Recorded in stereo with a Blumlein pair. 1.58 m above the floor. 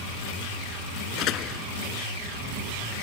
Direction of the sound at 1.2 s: 35° left.